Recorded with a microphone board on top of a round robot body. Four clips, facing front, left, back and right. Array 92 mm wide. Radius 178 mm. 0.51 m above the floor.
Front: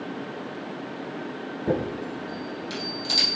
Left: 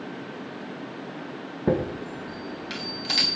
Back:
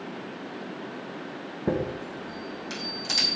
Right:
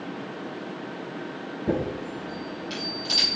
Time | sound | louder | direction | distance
1.7 | a chime | left 2 dB, front 1 dB | 110° left | 4 m